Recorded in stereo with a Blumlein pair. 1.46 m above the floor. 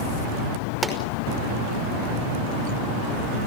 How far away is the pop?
About 5 m.